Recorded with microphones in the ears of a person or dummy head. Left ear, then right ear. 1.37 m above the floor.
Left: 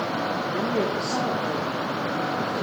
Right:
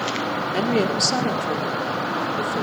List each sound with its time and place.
0.5 s a woman speaking: 85° right, 4 m